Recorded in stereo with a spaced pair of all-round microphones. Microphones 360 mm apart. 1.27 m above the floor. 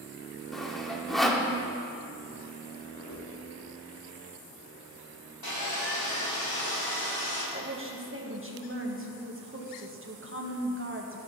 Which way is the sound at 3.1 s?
70° left (ahead or behind).